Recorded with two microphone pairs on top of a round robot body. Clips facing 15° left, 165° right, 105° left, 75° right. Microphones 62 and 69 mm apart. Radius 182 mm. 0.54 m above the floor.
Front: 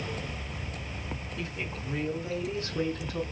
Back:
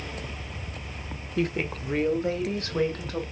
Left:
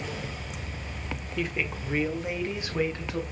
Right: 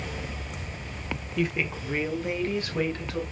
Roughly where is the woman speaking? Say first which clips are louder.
Back 12 dB, right 3 dB; behind.